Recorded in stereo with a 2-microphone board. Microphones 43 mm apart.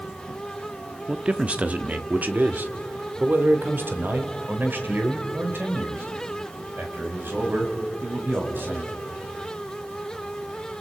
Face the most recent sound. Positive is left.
turn(degrees=-55)  # may be behind; listen again after turning